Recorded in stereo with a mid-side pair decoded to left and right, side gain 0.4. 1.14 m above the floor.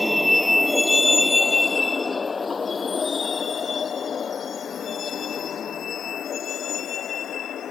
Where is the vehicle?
10° left; by 7.7 s 65° left.